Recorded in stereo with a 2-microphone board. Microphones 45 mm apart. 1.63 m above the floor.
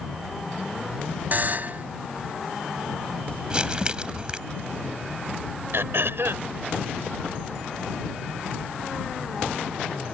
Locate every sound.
1.3 s a buzzer: 45° right (ahead or behind)
3.5 s crumpling: 20° right (ahead or behind)
5.7 s throat clearing: 70° right (ahead or behind)